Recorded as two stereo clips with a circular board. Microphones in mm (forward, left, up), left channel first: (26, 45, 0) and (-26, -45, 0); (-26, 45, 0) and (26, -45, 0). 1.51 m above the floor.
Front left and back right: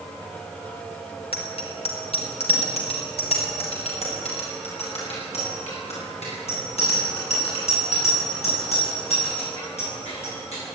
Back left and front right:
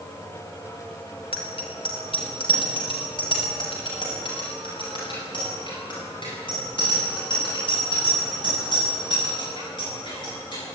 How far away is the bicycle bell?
About 4 m.